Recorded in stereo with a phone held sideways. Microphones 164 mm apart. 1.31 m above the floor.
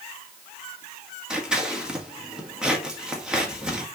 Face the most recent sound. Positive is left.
turn(degrees=-5)  # may be behind; listen again after turning